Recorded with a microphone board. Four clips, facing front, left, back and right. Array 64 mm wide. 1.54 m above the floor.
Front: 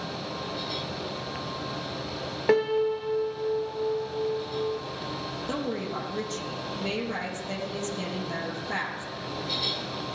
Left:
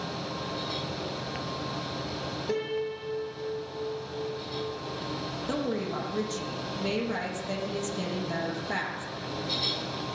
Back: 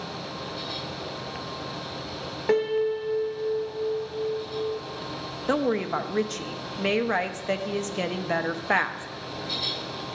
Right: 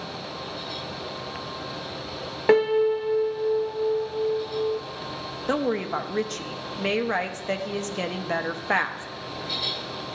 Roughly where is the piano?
Right.